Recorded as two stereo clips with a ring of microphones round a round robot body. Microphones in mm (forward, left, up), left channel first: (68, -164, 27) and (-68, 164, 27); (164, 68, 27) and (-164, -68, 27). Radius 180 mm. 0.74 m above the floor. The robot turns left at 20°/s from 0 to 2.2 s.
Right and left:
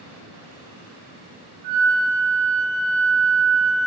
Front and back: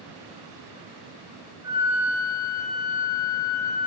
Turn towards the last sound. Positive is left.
turn(degrees=115)